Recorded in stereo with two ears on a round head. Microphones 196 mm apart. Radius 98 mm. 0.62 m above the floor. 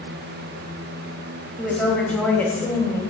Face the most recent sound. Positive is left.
turn(degrees=15)  # may be behind; listen again after turning